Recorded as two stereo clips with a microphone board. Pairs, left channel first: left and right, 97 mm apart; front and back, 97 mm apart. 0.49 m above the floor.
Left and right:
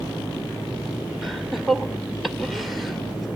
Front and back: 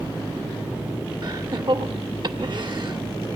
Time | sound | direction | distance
1.2 | laughter | straight behind | 1.7 m